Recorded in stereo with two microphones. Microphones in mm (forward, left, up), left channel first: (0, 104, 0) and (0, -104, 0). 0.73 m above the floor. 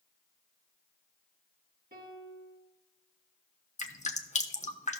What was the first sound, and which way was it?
A piano, 50° right (ahead or behind).